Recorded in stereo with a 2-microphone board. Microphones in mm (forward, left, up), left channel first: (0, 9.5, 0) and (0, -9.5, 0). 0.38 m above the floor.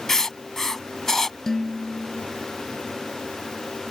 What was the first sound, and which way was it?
Writing, 25° left (ahead or behind).